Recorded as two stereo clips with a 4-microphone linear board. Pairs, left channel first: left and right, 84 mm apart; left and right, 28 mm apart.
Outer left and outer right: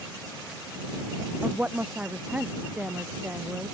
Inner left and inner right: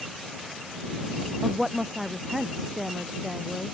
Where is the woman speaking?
15° right (ahead or behind).